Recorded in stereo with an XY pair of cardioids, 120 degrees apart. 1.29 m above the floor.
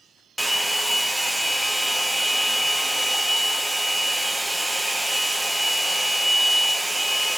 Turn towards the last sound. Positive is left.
turn(degrees=-10)